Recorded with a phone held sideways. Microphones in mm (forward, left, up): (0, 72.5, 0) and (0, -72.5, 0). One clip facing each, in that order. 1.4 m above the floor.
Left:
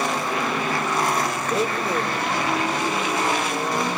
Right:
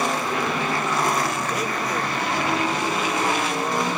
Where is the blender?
25° left (ahead or behind), 1.1 m.